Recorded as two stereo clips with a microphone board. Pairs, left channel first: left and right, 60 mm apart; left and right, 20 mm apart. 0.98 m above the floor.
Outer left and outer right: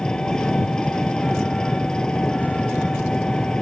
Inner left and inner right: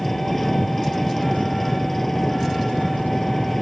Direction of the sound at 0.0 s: 10° left (ahead or behind).